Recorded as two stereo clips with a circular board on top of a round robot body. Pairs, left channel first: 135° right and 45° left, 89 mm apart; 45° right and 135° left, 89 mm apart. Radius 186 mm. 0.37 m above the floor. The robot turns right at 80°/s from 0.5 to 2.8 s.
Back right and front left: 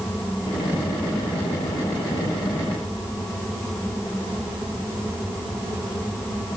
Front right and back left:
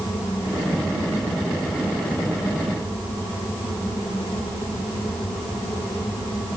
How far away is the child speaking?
I don't hear a child speaking.